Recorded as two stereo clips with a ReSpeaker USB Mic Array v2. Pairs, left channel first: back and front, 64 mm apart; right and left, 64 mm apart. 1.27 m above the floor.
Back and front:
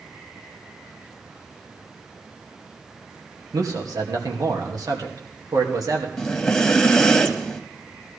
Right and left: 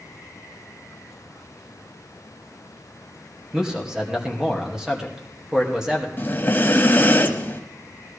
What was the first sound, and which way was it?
A man speaking, 10° left.